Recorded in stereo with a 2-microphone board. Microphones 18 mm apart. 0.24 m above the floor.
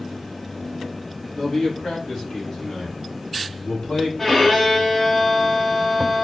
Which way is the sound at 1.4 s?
30° left (ahead or behind).